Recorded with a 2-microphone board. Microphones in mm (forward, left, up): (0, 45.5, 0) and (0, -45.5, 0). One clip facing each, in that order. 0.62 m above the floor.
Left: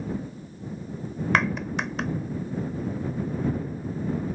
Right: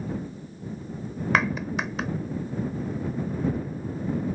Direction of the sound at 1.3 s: Centre (ahead or behind).